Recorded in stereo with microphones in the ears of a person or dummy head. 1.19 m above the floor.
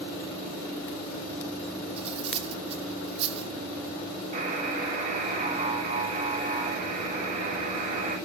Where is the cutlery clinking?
35° right (ahead or behind), 1.1 m.